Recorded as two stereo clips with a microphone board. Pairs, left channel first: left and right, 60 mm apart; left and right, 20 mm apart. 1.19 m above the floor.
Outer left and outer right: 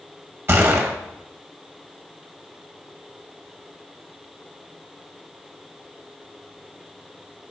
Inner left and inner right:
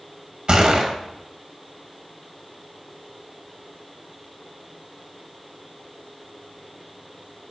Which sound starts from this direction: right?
A gunshot, at 0.5 s.